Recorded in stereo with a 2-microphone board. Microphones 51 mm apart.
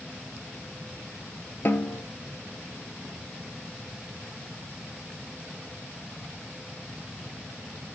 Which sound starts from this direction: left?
A snare drum, at 1.6 s.